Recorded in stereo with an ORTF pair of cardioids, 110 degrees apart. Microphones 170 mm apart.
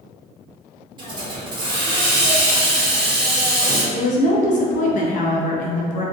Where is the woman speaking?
50° left, 0.5 m.